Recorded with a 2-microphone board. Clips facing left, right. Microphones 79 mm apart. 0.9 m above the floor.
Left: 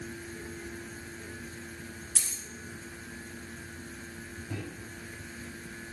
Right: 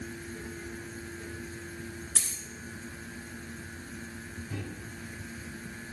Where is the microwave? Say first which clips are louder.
Left 1 dB; 45° left (ahead or behind), 5 m.